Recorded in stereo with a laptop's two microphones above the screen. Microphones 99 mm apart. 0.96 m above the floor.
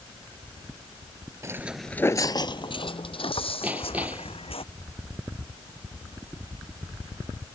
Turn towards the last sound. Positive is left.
turn(degrees=-15)  # may be behind; listen again after turning